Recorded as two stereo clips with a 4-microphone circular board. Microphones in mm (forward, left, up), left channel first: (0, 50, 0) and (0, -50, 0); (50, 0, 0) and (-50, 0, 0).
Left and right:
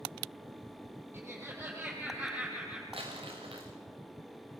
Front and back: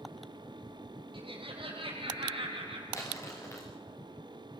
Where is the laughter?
155° right, 5 m; by 2.8 s 170° right, 5 m.